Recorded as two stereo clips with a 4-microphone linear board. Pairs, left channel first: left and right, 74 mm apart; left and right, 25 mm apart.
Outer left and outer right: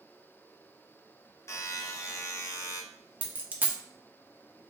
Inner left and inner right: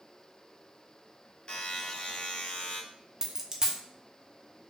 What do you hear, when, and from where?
1.5 s a buzzer: 45° left (ahead or behind), 0.6 m
3.2 s a dropped coin: 20° right (ahead or behind), 0.5 m